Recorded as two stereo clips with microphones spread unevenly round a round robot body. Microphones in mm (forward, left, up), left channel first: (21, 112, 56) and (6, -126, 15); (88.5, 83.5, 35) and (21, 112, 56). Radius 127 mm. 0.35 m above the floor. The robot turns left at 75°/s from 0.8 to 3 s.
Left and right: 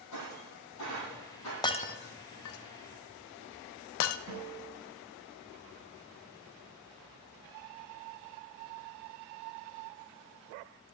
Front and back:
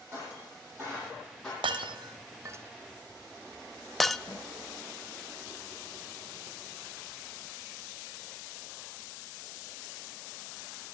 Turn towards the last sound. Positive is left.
turn(degrees=-75)